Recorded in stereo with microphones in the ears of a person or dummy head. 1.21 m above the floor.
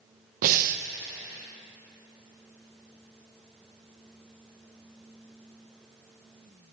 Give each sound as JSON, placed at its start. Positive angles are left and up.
{"t": 0.4, "sound": "breathing", "side_deg": -50, "distance_m": 0.7}